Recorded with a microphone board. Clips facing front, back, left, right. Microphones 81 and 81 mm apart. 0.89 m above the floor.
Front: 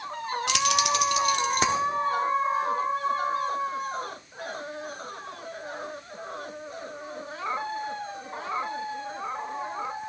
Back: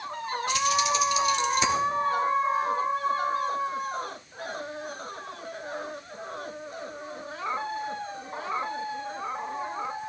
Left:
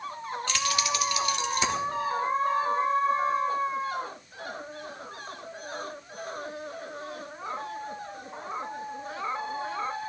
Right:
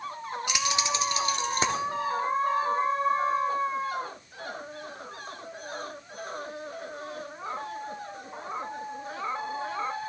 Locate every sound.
0.5 s keys jangling: 15° right, 0.7 m; by 1.8 s 45° right, 1.2 m